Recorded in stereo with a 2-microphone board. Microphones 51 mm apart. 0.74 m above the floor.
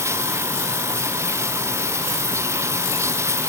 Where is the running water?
80° right.